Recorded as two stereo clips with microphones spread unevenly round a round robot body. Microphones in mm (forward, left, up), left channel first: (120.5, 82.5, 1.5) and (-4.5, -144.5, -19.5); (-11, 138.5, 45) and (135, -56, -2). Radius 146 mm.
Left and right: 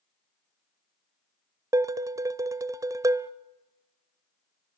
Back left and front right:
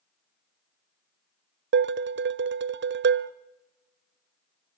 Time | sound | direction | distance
1.7 | dishes clattering | 45° right | 0.7 m